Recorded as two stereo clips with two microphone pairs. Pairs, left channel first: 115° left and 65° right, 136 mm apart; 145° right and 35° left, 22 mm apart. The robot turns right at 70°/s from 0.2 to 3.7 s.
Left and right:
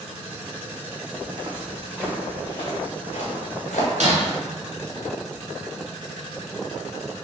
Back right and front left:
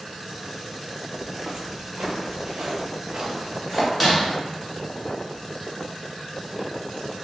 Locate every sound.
1.2 s footsteps: 25° right, 1.1 m; by 3.9 s 120° left, 2.5 m
4.0 s breaking glass: 45° right, 1.5 m